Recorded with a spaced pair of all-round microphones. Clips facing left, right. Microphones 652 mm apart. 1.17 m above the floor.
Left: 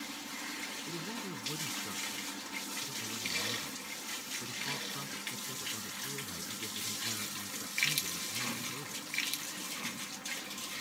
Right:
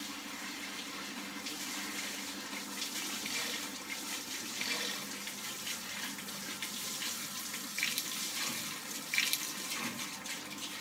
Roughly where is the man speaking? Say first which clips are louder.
Left 8 dB; left.